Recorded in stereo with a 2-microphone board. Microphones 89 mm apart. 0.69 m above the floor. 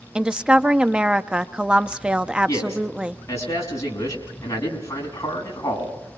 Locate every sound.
0.1 s a woman speaking: 10° right (ahead or behind), 0.7 m
2.5 s a man speaking: 35° left (ahead or behind), 6 m